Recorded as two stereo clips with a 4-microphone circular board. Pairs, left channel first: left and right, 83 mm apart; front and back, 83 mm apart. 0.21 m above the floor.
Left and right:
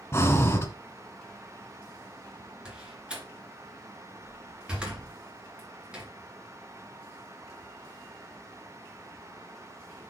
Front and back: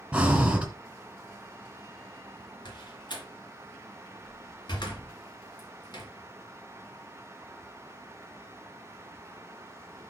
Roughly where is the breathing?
Behind left.